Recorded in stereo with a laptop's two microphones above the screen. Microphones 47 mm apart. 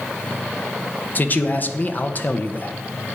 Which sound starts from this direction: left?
A man speaking, at 1.1 s.